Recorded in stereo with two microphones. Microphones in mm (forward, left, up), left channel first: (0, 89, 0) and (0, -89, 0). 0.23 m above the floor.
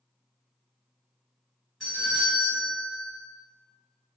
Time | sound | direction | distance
1.8 | a doorbell | centre (ahead or behind) | 1.9 m